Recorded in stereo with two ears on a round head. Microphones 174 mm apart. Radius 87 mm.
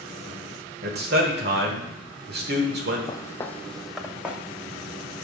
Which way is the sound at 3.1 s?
25° left (ahead or behind).